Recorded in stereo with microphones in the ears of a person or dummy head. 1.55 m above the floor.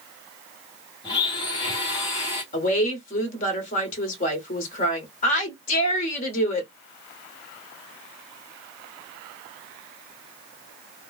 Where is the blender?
25° left (ahead or behind), 1.2 m.